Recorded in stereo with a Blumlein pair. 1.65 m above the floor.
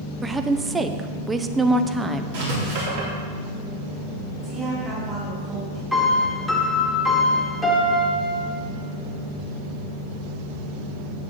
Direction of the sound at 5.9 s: 5° left.